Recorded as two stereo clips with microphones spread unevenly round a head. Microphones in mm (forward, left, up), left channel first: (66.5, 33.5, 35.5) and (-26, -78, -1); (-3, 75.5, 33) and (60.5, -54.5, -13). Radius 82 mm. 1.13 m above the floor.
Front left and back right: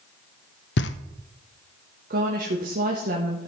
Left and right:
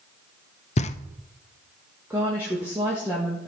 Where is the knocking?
65° left, 0.5 m.